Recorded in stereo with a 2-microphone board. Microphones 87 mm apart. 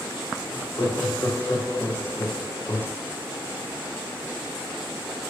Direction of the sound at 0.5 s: 35° left (ahead or behind).